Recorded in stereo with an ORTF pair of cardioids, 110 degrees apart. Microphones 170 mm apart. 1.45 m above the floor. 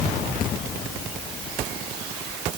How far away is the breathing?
I don't hear breathing.